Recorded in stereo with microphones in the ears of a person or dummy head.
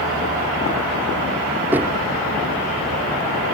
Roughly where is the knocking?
Centre.